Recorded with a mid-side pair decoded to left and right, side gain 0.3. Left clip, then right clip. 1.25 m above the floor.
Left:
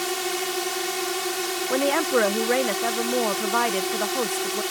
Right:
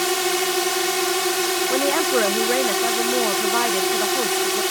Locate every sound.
0.0 s a drone: 55° right
1.7 s a woman speaking: 5° left